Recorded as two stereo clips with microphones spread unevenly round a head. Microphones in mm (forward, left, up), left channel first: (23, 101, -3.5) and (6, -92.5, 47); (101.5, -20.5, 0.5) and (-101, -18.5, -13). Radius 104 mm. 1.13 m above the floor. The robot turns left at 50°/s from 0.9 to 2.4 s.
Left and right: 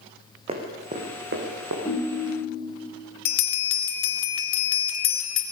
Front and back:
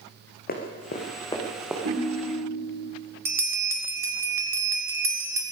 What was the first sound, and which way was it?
Running footsteps, 40° right.